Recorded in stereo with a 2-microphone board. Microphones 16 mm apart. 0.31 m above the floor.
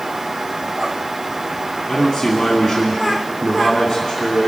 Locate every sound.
1.9 s a man speaking: 5° left (ahead or behind), 2.5 m